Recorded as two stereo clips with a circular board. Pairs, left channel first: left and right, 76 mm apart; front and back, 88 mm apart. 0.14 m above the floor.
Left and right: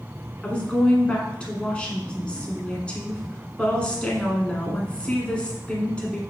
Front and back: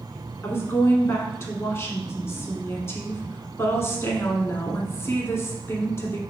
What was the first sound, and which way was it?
A woman speaking, 25° left.